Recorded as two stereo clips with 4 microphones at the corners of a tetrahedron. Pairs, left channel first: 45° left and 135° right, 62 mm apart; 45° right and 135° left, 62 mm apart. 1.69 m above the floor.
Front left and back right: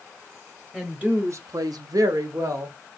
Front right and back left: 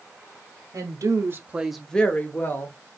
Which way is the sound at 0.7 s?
150° left.